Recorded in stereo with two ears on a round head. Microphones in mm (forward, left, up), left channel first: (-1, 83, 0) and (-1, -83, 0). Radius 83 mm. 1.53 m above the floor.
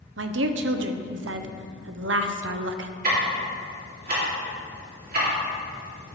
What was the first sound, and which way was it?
A woman speaking, 70° right (ahead or behind).